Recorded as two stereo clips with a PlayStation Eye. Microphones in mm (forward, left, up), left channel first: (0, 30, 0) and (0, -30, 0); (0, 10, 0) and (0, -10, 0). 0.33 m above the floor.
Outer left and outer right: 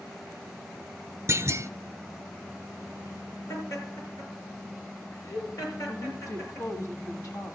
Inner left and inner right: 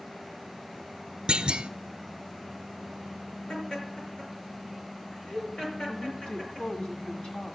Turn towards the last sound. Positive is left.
turn(degrees=65)  # may be behind; listen again after turning